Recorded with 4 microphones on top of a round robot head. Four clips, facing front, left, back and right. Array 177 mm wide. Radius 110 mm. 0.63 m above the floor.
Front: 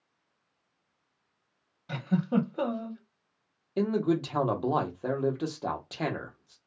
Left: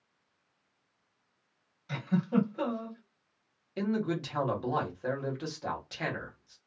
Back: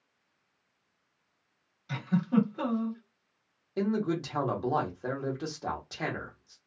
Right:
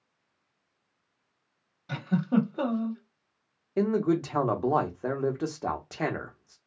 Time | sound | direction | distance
1.9 | a giggle | 45° right | 1.0 m
3.8 | a man speaking | 65° right | 0.8 m